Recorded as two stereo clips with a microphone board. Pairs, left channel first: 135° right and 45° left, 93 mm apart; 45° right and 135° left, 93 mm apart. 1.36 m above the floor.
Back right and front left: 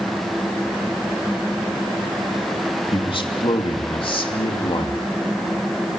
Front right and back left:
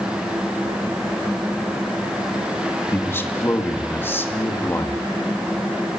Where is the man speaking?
110° right, 2.5 m.